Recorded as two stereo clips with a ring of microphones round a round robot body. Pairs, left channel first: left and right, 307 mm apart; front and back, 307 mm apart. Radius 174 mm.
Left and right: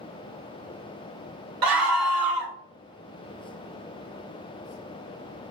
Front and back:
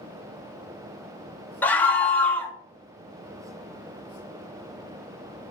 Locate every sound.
1.6 s a scream: 85° right, 1.4 m